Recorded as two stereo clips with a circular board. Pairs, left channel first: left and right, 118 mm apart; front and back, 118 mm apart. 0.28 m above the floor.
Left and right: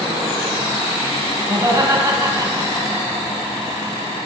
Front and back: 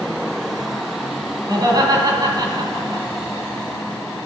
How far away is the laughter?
About 2.0 m.